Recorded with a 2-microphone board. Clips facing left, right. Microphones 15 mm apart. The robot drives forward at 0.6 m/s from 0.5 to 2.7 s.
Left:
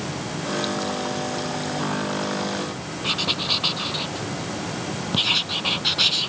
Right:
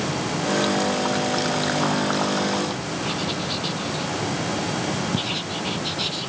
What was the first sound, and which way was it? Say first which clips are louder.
Writing: left 6 dB; 35° left (ahead or behind).